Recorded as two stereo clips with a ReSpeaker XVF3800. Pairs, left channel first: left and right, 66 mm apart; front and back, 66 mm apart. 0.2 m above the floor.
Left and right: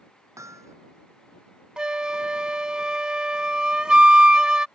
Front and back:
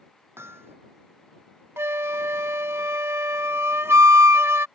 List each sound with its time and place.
0.4 s hammering: 130° right
1.8 s a flute: 160° right